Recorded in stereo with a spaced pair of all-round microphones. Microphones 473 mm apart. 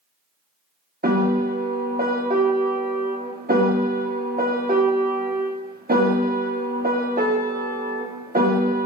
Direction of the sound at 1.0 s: 20° right (ahead or behind).